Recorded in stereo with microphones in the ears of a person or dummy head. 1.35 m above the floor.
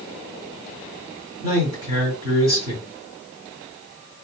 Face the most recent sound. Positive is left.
turn(degrees=-20)  # may be behind; listen again after turning